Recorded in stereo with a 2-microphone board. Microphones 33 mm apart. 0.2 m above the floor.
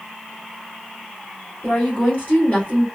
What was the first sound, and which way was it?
A woman speaking, 40° left (ahead or behind).